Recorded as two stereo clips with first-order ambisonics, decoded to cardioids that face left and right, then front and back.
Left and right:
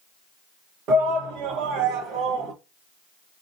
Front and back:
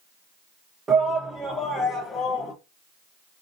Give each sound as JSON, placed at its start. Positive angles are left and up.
{"t": 0.9, "sound": "a shout", "azimuth_deg": -110, "distance_m": 1.1}